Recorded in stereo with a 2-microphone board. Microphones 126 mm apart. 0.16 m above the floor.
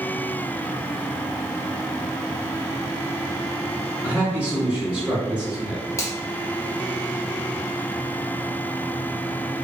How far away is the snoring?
I don't hear snoring.